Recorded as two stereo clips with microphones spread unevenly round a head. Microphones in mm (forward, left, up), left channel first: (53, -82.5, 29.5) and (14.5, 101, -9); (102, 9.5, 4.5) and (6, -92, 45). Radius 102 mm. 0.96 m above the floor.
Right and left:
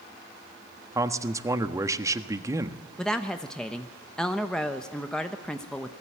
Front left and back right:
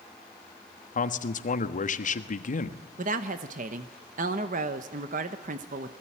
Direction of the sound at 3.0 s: 175° right.